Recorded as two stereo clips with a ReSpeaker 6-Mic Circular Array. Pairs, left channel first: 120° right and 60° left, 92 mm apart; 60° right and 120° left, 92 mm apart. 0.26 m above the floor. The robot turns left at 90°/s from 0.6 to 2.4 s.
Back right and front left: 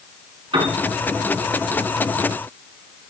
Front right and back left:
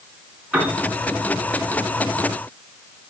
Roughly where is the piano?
Ahead left.